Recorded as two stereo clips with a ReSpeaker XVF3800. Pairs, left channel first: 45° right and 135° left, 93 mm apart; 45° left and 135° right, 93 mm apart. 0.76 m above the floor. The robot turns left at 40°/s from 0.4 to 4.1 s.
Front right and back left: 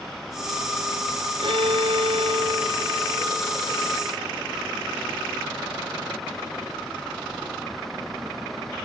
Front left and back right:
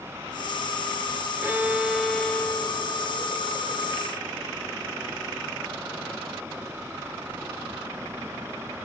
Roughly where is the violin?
Behind.